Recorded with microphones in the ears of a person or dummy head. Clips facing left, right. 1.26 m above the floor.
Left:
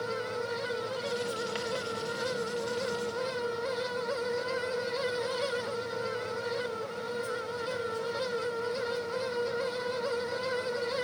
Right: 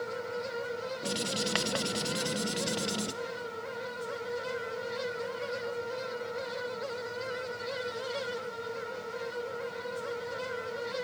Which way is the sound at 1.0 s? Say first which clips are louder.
Left 1 dB; 75° right (ahead or behind).